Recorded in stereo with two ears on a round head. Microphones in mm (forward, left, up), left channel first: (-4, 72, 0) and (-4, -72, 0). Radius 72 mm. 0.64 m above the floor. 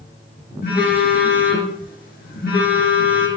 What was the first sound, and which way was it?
A phone buzzing, 60° left (ahead or behind).